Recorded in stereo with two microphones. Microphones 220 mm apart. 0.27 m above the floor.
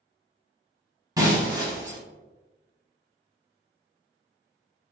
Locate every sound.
1.2 s breaking glass: 15° right (ahead or behind), 1.3 m